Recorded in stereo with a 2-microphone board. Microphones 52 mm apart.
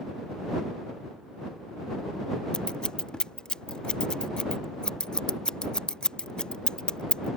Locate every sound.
2.5 s scissors: 20° left (ahead or behind)